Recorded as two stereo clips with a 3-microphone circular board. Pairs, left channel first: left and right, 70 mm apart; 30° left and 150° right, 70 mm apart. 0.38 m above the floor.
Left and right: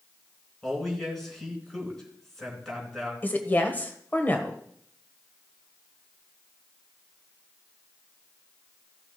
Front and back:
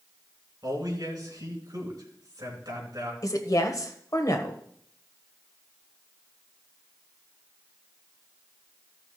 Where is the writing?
No writing in this recording.